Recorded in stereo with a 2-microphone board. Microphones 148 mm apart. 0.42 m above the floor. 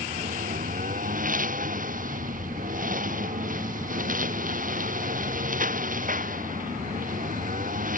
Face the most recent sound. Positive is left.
turn(degrees=-65)  # may be behind; listen again after turning